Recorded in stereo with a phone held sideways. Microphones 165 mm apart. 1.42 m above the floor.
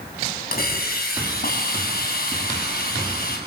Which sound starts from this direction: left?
A hiss, at 0.5 s.